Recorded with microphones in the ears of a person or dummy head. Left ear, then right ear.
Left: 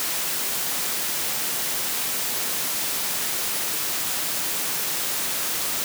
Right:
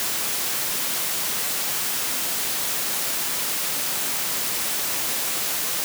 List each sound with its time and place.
Only background noise.